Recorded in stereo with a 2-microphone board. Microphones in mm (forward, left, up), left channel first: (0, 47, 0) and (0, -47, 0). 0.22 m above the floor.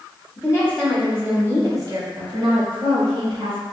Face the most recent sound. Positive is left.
turn(degrees=-65)  # may be behind; listen again after turning